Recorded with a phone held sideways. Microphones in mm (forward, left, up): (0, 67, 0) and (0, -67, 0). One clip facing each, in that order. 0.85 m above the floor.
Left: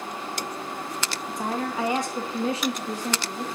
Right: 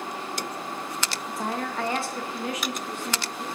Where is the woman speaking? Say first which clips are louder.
Left 2 dB; centre (ahead or behind), 1.2 m; by 3.5 s 45° left (ahead or behind), 2 m.